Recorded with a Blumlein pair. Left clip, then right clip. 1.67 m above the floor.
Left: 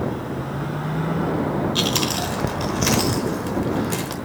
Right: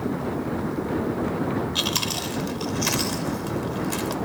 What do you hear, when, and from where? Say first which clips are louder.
1.8 s chewing: left 3 dB; 10° left, 1.1 m